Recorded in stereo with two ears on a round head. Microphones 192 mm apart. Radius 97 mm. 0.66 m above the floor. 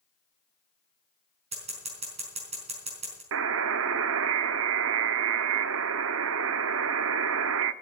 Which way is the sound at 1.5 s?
30° right (ahead or behind).